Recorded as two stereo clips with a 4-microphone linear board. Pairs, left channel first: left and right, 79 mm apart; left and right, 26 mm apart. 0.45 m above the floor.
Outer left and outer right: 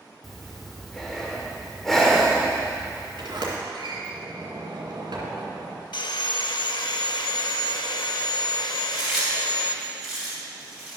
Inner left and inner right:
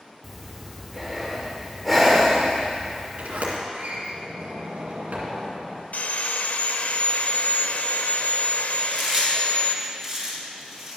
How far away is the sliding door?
About 2 m.